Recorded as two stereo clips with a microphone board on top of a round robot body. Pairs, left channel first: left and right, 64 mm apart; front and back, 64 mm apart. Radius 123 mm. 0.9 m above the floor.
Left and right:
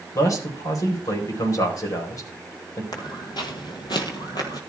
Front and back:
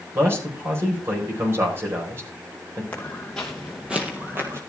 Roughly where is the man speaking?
Behind left.